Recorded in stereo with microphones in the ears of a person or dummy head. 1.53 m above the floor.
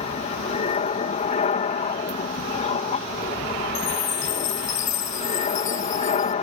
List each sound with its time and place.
0.0 s an aircraft: 35° left (ahead or behind)
3.8 s a chime: 40° left (ahead or behind)